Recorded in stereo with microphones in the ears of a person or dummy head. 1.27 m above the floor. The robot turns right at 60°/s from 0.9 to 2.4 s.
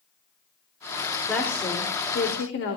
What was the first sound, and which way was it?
A woman speaking, straight ahead.